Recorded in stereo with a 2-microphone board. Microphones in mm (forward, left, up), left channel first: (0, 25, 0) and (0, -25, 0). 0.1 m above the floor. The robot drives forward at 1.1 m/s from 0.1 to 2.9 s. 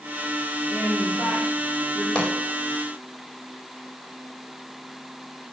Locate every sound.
0.7 s a woman speaking: 25° right (ahead or behind), 6.5 m; by 2.0 s 30° right (ahead or behind), 5.5 m
2.1 s a pop: 15° left (ahead or behind), 7 m